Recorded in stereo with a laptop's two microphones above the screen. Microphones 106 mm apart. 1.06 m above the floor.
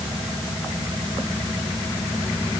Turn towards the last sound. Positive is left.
No sound to turn to.